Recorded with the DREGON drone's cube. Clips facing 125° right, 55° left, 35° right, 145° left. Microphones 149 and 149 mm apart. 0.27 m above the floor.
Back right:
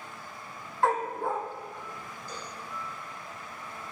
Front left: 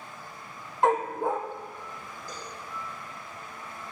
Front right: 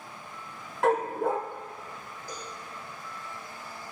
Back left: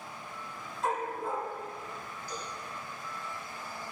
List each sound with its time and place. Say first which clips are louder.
0.8 s a dog barking: front left 3 dB, front right 8 dB; 15° right, 1.8 m
2.3 s a cowbell: even, even; 5° left, 8 m